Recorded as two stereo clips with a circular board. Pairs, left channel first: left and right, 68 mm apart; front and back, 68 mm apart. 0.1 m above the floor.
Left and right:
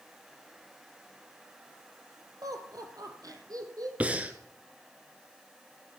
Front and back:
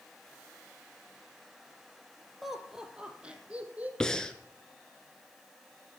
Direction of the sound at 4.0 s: 65° right.